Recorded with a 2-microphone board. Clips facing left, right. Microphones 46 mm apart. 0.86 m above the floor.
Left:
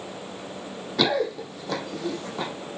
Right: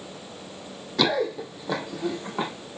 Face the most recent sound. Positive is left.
turn(degrees=-30)  # may be behind; listen again after turning